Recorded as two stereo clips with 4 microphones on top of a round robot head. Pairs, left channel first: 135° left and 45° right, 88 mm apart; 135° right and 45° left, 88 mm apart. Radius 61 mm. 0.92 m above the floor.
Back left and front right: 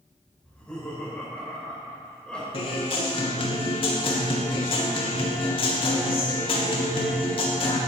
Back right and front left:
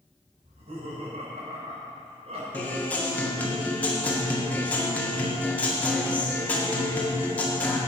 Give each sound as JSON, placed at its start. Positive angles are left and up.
{"t": 0.4, "sound": "laughter", "azimuth_deg": 50, "distance_m": 4.5}
{"t": 2.5, "sound": "a guitar", "azimuth_deg": 155, "distance_m": 1.8}